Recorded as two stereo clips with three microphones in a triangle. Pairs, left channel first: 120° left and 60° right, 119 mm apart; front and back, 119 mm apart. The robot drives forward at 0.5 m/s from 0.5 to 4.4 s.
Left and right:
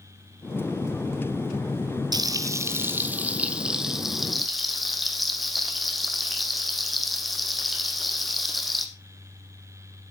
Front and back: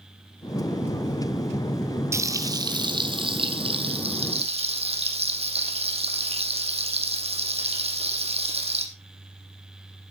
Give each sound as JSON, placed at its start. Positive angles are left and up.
{"t": 2.1, "sound": "frying", "azimuth_deg": -115, "distance_m": 1.0}